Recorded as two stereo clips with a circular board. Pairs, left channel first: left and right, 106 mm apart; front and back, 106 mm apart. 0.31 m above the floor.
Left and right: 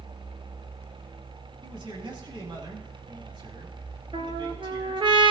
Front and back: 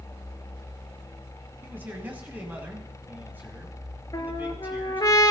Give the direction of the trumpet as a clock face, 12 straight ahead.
2 o'clock.